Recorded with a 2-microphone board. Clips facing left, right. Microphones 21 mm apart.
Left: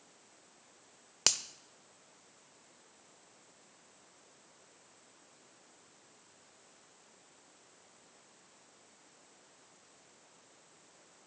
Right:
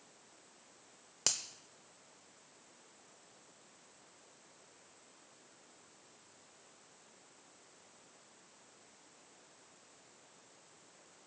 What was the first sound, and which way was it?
A finger snap, 35° left (ahead or behind).